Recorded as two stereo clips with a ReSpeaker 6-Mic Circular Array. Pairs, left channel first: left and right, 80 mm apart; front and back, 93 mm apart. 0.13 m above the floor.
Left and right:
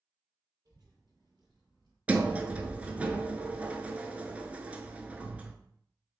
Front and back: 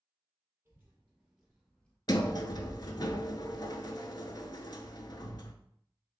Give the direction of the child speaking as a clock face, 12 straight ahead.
4 o'clock.